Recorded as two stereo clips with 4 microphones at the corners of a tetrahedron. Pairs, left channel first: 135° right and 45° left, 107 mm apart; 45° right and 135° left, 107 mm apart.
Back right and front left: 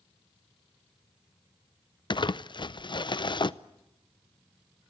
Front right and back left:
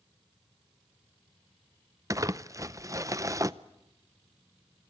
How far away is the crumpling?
About 0.6 m.